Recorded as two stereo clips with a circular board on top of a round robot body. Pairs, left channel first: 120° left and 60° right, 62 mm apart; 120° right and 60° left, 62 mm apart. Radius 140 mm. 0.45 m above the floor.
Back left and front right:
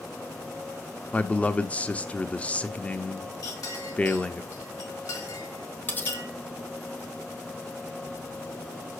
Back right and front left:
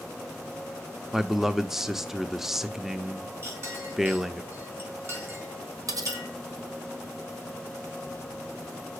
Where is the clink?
105° left, 4 m.